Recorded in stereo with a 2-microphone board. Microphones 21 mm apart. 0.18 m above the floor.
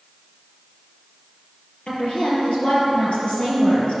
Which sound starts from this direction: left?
A woman speaking, at 1.9 s.